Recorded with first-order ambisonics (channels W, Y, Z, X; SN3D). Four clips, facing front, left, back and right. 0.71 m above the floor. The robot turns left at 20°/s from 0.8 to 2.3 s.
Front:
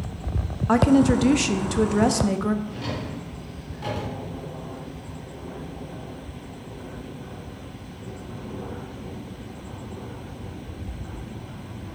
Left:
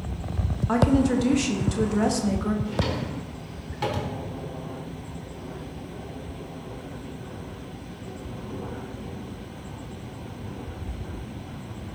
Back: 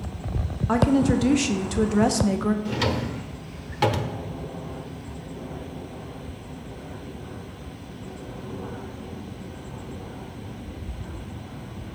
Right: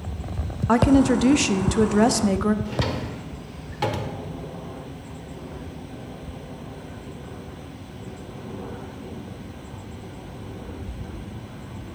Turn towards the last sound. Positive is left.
turn(degrees=-165)